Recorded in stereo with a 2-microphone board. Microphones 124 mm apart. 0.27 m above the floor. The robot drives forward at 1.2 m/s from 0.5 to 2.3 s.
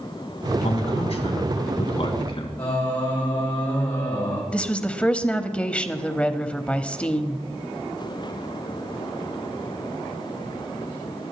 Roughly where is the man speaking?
Left.